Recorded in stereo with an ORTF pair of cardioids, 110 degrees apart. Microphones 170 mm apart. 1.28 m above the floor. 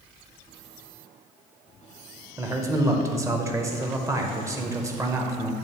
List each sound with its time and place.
2.4 s a man speaking: 20° right, 1.0 m